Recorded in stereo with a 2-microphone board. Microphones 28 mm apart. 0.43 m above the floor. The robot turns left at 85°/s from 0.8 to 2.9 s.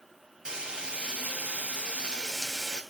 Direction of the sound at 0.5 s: 35° right.